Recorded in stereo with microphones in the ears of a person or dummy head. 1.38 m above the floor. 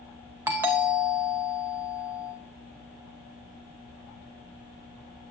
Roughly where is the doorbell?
Centre.